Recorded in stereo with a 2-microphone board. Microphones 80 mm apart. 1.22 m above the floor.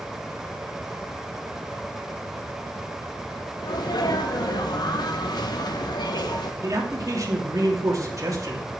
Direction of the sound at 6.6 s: 45° right (ahead or behind).